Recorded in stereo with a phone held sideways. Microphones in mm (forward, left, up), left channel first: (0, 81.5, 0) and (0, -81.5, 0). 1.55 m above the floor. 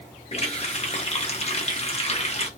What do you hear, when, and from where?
0.3 s a running tap: 40° left (ahead or behind), 1.0 m